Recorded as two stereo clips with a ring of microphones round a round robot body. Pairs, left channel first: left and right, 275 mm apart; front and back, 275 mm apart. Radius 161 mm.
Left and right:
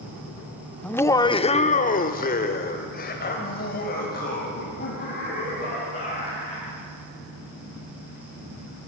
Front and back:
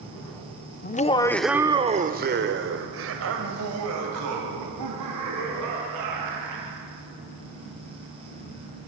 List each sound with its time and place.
0.8 s laughter: 10° left, 0.9 m; by 6.8 s 150° left, 4.5 m